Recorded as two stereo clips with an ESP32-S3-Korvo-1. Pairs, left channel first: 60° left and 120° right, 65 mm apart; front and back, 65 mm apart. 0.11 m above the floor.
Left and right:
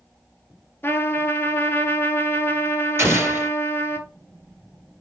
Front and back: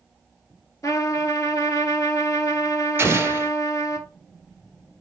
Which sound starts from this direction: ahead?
A trumpet, at 0.8 s.